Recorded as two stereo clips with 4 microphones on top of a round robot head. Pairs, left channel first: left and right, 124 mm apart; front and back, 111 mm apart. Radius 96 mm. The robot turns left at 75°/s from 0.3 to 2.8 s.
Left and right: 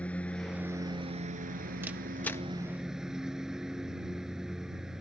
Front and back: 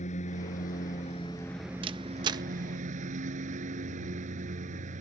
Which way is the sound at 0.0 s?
10° left.